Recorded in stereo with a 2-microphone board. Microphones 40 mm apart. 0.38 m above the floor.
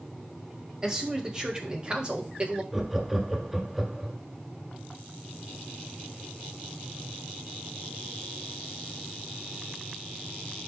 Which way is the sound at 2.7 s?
5° right (ahead or behind).